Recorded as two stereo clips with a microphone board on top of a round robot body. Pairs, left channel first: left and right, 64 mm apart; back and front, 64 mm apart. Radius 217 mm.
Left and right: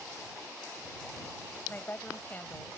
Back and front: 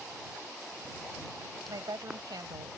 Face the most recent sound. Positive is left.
turn(degrees=30)